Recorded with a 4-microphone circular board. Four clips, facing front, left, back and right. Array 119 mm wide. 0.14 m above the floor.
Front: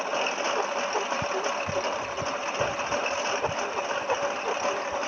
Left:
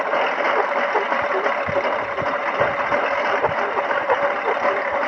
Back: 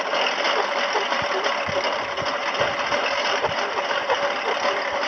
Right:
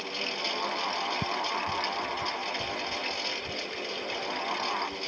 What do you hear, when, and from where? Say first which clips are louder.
0.0 s a lawn mower: left 16 dB, back 5 dB; 105° left
1.2 s ticking: left 10 dB, back 5 dB; 90° right